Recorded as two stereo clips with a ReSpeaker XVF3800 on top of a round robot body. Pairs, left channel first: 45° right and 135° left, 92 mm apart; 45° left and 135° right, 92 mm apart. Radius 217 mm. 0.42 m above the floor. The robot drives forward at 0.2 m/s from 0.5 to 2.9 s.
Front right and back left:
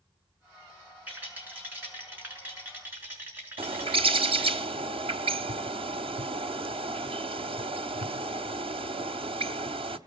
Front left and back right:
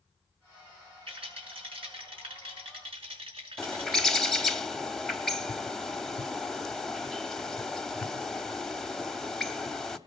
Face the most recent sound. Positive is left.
turn(degrees=130)